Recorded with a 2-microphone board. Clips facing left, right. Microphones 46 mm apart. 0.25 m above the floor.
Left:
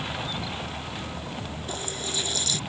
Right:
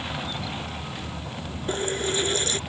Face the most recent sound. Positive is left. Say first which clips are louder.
# right 9 dB
turn(degrees=-35)  # may be behind; listen again after turning